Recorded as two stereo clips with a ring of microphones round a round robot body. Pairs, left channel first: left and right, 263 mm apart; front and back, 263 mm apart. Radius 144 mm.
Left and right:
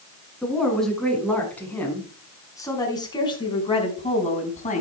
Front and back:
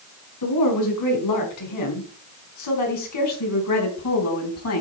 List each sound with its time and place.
0.4 s a woman speaking: straight ahead, 5.5 m; by 4.8 s 30° left, 4.5 m